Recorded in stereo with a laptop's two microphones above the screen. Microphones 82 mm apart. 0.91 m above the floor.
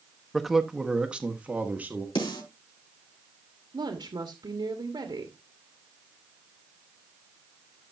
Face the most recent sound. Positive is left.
turn(degrees=-65)  # may be behind; listen again after turning